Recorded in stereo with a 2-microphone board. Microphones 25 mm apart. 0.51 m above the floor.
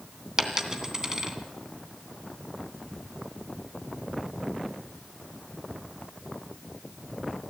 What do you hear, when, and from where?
0.4 s a dropped coin: 25° right (ahead or behind), 2.5 m